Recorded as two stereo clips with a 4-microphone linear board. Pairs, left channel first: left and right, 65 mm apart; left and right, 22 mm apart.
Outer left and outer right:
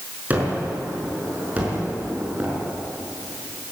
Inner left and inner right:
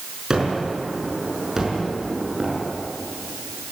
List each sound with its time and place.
0.3 s a gunshot: 25° right (ahead or behind), 6 m